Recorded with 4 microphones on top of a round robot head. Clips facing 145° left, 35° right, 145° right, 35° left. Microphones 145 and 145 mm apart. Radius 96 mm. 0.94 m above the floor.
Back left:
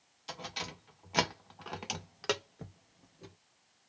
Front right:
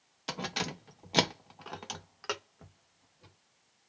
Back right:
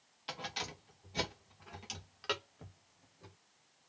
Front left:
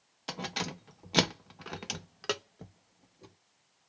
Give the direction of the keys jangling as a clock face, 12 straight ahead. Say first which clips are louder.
Front right 7 dB, front left 6 dB; 12 o'clock.